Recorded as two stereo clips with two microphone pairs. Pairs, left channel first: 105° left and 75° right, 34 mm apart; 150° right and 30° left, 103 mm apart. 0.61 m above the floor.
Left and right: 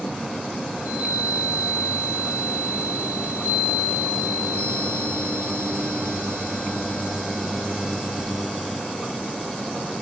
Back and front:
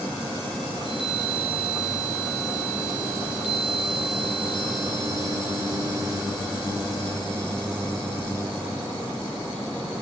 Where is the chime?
115° left, 4 m.